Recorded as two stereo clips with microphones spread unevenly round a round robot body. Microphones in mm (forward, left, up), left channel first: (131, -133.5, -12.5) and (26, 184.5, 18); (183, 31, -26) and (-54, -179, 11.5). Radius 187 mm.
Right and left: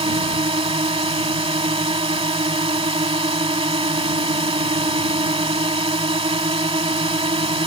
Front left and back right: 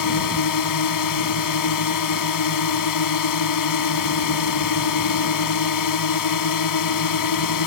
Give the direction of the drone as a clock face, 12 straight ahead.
11 o'clock.